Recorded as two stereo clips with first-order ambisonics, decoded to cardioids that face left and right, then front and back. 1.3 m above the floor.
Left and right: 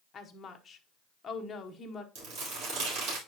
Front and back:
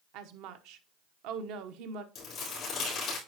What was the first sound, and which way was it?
A woman speaking, 160° left.